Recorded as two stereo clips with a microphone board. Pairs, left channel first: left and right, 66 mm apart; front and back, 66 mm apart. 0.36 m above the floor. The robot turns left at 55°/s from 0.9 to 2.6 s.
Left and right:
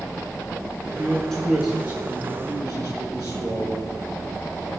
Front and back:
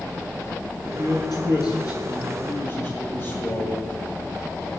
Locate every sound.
0.8 s a man speaking: 35° left, 5 m; by 4.7 s 60° right, 5 m